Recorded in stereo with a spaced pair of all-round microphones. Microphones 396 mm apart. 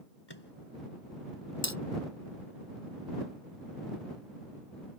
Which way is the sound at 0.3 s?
85° left.